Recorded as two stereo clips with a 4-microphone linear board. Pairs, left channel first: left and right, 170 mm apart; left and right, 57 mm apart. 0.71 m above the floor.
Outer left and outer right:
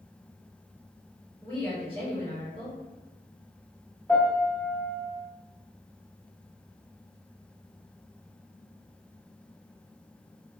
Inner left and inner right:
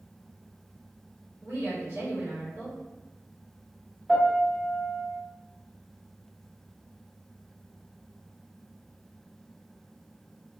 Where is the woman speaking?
35° right (ahead or behind), 1.3 m.